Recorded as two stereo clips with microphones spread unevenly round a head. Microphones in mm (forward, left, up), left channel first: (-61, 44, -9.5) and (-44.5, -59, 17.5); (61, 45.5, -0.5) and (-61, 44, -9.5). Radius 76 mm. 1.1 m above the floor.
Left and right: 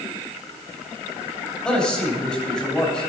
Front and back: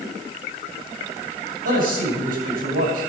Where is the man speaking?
Straight behind, 8 m.